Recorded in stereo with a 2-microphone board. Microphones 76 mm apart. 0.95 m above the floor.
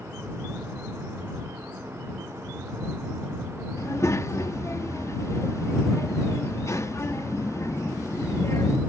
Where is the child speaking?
40° left (ahead or behind).